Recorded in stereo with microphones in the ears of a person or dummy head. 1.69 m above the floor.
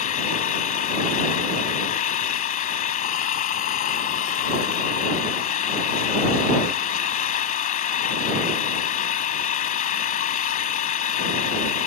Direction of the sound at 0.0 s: 35° left (ahead or behind).